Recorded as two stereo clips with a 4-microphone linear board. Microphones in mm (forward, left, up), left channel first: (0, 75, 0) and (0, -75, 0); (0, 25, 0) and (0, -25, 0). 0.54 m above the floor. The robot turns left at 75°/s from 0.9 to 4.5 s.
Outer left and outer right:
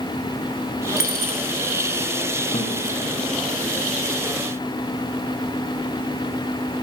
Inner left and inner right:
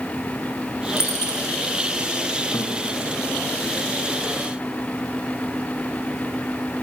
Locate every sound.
1.0 s a dropped coin: 70° left (ahead or behind), 1.9 m; by 1.4 s 75° left (ahead or behind), 1.9 m
2.5 s a guitar: 55° left (ahead or behind), 3 m; by 2.8 s 40° left (ahead or behind), 3 m